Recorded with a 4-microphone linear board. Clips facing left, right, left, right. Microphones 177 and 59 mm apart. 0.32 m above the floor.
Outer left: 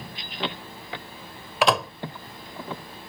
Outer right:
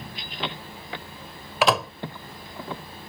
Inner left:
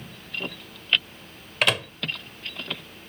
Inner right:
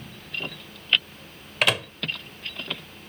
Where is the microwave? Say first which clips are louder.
Even, even; centre (ahead or behind).